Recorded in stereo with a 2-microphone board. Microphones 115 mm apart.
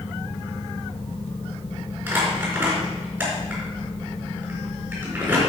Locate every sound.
2.1 s crumpling: 15° right (ahead or behind), 5 m